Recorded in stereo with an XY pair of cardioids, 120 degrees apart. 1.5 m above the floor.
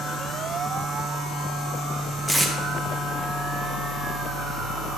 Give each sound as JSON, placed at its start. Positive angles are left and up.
{"t": 0.0, "sound": "a machine running", "azimuth_deg": 50, "distance_m": 4.0}
{"t": 2.3, "sound": "tape being pulled", "azimuth_deg": 5, "distance_m": 1.5}